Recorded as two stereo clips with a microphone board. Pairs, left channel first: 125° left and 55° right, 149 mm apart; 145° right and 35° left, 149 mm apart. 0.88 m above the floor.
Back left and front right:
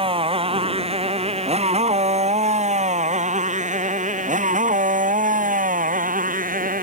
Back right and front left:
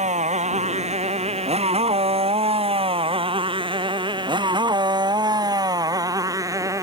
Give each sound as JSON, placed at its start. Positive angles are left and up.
{"t": 0.0, "sound": "a motorcycle", "azimuth_deg": -5}